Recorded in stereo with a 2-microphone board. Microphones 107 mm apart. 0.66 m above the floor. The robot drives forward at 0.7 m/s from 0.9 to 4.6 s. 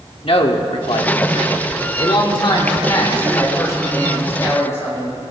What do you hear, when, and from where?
0.2 s a man speaking: 60° left (ahead or behind), 1.4 m; by 5.2 s 25° left (ahead or behind), 3 m